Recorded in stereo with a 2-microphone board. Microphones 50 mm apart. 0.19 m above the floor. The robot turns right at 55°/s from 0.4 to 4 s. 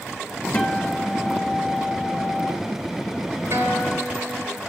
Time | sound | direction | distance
0.5 | a guitar | 30° left | 4 m
3.5 | a guitar | 55° right (ahead or behind) | 3.5 m